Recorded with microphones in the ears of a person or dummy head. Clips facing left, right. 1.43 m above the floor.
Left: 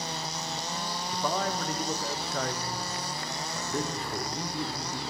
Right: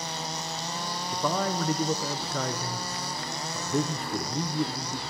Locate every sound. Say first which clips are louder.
1.1 s a man speaking: right 3 dB; 80° right, 0.7 m